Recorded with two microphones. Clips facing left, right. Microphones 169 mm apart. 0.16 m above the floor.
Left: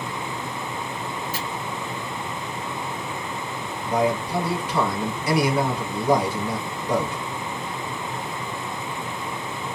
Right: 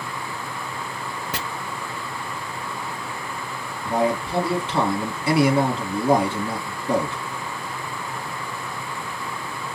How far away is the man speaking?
About 1.5 m.